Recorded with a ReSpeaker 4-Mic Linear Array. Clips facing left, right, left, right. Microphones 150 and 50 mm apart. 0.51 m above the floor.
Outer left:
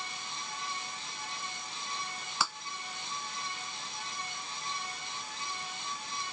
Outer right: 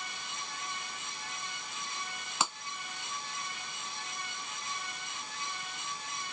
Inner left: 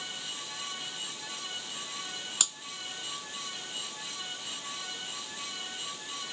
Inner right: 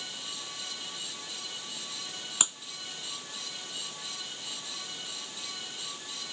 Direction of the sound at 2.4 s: 20° right (ahead or behind).